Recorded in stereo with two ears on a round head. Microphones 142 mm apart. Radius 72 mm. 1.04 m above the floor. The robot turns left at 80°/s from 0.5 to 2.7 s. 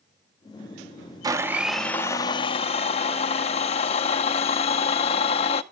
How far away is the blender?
About 0.6 m.